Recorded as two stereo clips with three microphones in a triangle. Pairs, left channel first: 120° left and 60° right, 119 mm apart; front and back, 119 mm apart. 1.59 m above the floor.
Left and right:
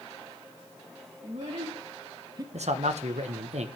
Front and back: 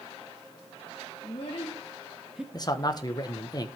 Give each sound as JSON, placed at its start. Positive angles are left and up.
{"t": 1.2, "sound": "a child speaking", "azimuth_deg": -35, "distance_m": 1.8}
{"t": 2.5, "sound": "a man speaking", "azimuth_deg": -55, "distance_m": 1.1}